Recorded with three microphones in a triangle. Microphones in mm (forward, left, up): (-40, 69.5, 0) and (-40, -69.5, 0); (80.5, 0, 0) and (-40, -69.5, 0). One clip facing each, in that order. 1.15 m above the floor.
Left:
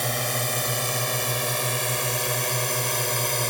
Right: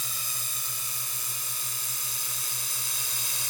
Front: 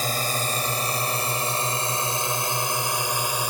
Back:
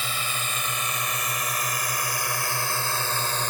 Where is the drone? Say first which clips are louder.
Left 18 dB, front 6 dB; 80° left; by 3.5 s 110° left.